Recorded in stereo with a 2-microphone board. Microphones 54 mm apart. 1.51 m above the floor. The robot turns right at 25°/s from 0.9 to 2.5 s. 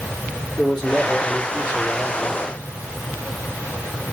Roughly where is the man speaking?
Ahead.